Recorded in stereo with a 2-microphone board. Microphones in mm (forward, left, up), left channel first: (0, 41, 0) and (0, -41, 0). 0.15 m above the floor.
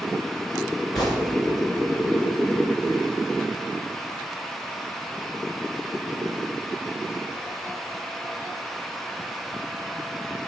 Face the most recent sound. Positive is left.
turn(degrees=5)  # may be behind; listen again after turning